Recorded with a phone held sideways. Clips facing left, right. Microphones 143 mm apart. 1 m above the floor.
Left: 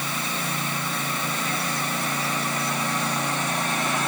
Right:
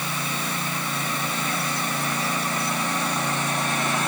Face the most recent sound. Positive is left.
No sound to turn to.